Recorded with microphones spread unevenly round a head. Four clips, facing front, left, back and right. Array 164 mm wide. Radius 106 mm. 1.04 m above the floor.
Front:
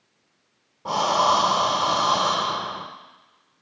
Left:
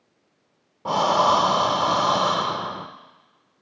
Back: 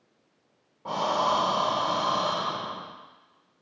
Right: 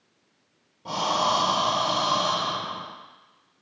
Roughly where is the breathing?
Ahead left.